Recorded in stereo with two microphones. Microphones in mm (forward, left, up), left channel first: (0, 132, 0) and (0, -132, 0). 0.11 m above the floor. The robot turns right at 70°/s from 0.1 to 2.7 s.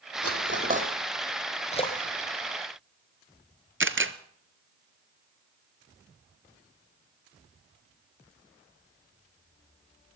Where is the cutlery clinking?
60° right (ahead or behind), 3.5 m; by 0.9 s 20° right (ahead or behind), 3.5 m.